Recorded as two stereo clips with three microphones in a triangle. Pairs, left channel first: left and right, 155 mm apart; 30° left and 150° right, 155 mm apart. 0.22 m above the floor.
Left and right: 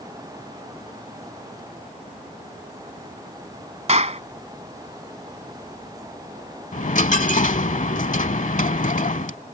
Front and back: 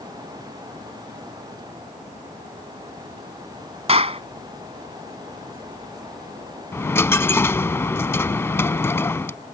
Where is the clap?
115° right.